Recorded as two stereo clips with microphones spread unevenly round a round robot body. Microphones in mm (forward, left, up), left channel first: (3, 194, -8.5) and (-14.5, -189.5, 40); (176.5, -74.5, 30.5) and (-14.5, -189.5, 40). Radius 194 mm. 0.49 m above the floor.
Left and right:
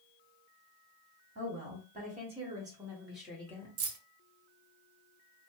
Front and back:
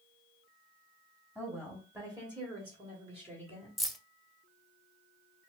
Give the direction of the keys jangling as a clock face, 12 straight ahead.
2 o'clock.